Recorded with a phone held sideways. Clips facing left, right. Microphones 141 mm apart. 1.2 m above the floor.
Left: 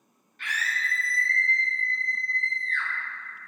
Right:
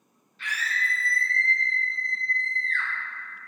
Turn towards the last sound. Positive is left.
turn(degrees=-50)  # may be behind; listen again after turning